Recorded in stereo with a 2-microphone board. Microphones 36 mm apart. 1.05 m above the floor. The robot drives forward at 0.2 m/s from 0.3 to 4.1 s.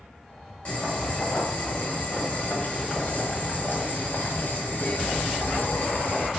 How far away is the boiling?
About 1.3 m.